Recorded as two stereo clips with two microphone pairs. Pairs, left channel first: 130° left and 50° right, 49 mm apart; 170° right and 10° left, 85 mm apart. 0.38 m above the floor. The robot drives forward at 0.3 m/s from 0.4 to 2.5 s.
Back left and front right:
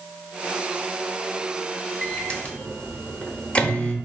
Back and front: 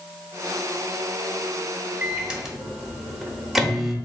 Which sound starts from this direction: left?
A microwave, at 2.0 s.